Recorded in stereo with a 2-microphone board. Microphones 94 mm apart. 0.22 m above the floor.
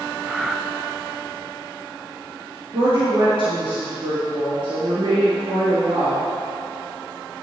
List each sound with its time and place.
0.2 s breathing: 5° right (ahead or behind), 0.5 m
2.7 s a woman speaking: 65° right (ahead or behind), 4 m